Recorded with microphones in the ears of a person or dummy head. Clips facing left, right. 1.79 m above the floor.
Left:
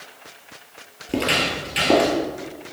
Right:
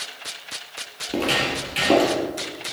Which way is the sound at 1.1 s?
15° left (ahead or behind).